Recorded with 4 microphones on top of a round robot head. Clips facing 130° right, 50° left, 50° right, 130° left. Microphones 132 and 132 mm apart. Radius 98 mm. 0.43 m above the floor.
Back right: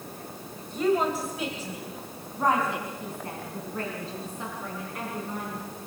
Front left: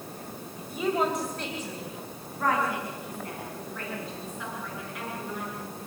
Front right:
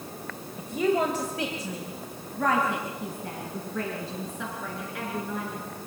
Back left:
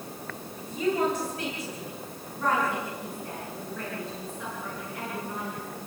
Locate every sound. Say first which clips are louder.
0.6 s a woman speaking: back right 3 dB, front right 2 dB; 30° right, 2.5 m; by 5.6 s 75° right, 7.5 m